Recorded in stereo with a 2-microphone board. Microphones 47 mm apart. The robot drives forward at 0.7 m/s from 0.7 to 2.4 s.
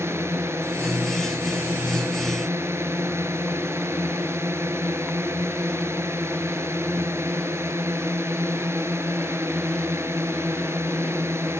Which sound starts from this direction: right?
A drone, at 0.0 s.